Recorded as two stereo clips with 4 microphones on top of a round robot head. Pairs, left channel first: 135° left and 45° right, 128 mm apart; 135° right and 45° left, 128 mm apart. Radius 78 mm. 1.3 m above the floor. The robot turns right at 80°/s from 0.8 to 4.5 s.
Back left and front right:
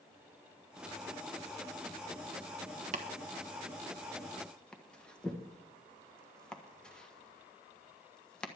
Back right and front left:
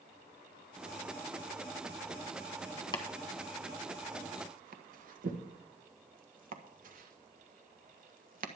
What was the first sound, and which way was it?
Chopping, 75° right.